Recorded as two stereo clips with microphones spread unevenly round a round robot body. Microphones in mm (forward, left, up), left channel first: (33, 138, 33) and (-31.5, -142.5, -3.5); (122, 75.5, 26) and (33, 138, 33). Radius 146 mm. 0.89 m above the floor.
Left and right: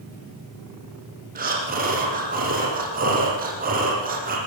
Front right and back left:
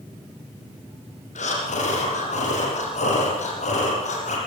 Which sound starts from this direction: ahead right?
Breathing, at 1.4 s.